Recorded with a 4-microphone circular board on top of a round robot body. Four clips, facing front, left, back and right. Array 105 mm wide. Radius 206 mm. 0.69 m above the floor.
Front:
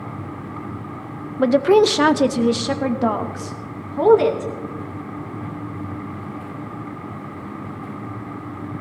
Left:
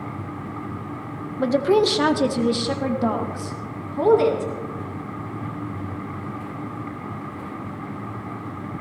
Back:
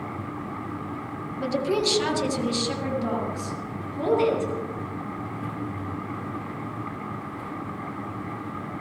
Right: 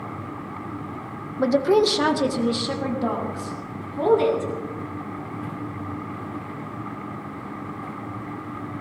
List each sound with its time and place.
1.4 s a woman speaking: 15° right, 0.9 m; by 4.5 s 10° left, 3.5 m